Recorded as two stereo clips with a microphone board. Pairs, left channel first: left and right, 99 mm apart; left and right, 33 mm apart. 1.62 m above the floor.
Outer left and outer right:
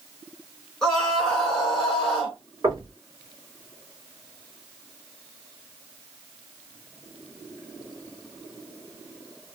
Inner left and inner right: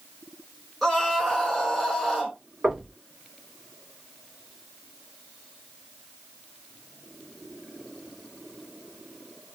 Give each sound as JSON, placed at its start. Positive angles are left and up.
{"t": 0.8, "sound": "a scream", "side_deg": 0, "distance_m": 2.0}
{"t": 2.6, "sound": "knocking", "side_deg": -40, "distance_m": 1.5}